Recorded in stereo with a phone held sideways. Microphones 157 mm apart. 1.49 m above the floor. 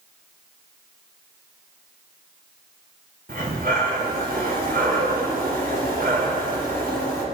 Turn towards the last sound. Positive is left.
turn(degrees=-65)  # may be behind; listen again after turning